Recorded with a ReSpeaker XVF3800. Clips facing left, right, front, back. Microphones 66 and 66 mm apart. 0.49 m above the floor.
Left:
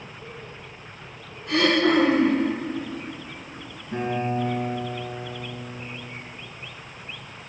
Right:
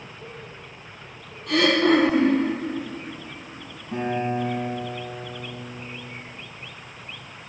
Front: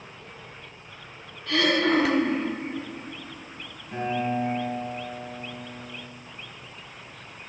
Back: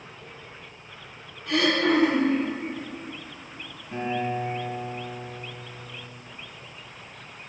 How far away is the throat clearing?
About 4.5 m.